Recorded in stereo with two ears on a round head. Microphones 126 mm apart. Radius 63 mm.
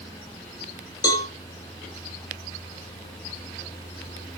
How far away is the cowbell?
About 1.8 m.